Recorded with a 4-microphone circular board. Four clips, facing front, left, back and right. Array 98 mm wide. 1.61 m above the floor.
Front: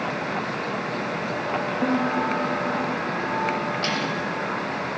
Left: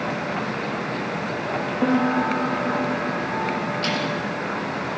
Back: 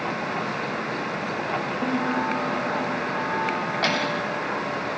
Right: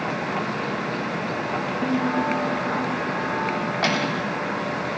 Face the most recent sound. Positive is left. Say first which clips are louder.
# right 1 dB, back 1 dB
turn(degrees=-125)